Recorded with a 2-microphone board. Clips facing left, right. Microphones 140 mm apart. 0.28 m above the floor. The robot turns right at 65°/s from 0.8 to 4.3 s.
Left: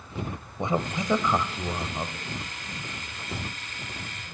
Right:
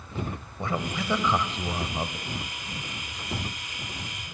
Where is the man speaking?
20° left (ahead or behind), 1.6 m; by 2.2 s 15° right (ahead or behind), 1.6 m.